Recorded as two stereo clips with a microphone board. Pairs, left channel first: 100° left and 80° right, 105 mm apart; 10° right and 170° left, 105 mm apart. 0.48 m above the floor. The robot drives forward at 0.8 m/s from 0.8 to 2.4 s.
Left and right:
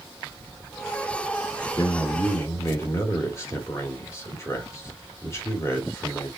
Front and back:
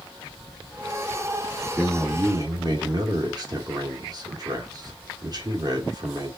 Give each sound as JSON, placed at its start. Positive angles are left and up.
{"t": 1.8, "sound": "a man speaking", "azimuth_deg": 115, "distance_m": 0.9}